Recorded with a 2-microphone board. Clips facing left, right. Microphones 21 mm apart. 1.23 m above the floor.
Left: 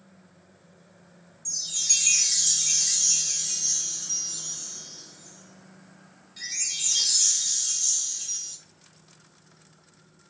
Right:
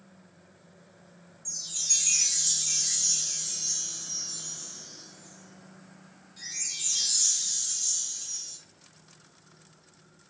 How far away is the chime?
About 0.8 m.